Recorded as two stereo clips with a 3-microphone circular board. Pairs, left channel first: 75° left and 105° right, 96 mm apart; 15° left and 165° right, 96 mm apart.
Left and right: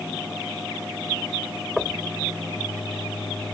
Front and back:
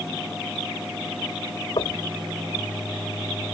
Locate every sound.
1.8 s knocking: 15° right